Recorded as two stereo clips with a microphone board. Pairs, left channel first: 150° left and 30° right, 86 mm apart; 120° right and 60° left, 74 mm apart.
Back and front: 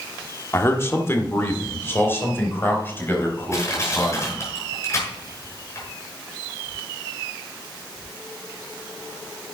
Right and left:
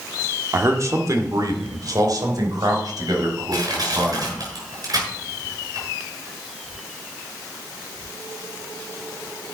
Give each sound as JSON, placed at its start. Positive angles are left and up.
{"t": 0.5, "sound": "a man speaking", "azimuth_deg": 100, "distance_m": 1.6}
{"t": 3.5, "sound": "crushing", "azimuth_deg": 95, "distance_m": 6.5}